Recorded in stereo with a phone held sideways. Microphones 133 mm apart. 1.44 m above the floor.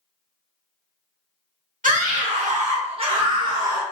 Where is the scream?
80° right, 0.9 m; by 3.8 s 30° right (ahead or behind), 1.2 m.